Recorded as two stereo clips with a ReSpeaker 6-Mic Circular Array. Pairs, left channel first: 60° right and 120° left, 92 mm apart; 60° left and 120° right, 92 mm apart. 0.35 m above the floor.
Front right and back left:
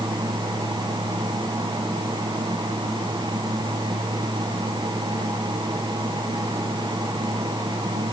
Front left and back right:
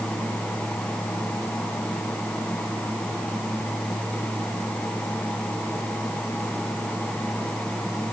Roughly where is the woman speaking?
I don't hear a woman speaking.